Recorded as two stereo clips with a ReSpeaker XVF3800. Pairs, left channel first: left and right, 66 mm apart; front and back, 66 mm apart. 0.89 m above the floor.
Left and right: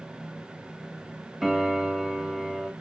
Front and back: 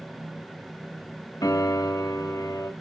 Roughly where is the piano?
Ahead.